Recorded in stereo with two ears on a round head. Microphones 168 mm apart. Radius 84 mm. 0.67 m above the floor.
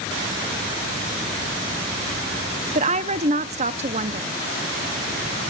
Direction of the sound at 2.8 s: 35° right (ahead or behind).